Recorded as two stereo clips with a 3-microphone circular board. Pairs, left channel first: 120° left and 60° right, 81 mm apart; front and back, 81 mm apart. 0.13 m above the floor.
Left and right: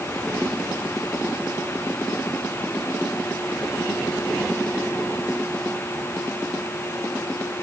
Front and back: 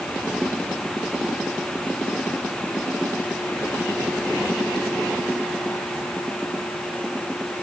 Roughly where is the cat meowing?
No cat meowing in this recording.